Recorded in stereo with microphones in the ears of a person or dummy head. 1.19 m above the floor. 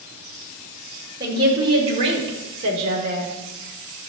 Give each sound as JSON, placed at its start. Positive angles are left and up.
{"t": 1.2, "sound": "a woman speaking", "side_deg": -20, "distance_m": 4.0}